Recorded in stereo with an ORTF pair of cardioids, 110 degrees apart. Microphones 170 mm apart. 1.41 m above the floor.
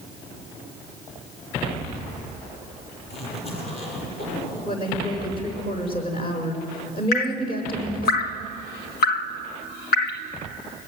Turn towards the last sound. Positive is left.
turn(degrees=65)